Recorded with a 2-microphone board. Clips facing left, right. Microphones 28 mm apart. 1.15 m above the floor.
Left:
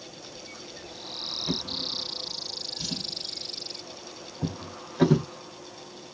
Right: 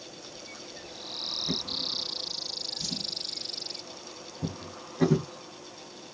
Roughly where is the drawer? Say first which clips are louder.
Left 2 dB; left.